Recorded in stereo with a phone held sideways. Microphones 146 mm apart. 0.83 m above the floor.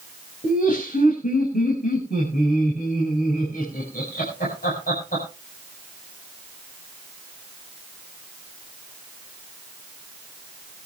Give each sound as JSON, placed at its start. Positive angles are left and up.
{"t": 0.4, "sound": "laughter", "side_deg": 80, "distance_m": 5.0}